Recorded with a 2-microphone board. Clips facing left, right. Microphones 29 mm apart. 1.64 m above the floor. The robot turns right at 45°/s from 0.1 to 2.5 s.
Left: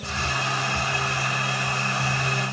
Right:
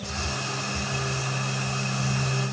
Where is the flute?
No flute in this recording.